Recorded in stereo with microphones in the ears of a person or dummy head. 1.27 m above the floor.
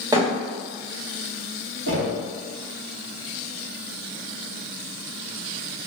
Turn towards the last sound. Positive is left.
turn(degrees=-80)